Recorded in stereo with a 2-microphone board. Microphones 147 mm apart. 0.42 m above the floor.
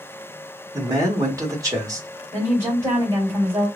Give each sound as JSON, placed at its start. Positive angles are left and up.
{"t": 0.7, "sound": "a man speaking", "side_deg": -25, "distance_m": 1.0}
{"t": 2.3, "sound": "a woman speaking", "side_deg": -20, "distance_m": 1.9}